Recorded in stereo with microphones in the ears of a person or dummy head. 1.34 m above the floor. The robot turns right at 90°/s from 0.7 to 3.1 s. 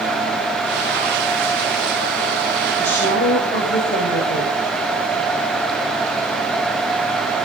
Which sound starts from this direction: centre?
A woman speaking, at 2.8 s.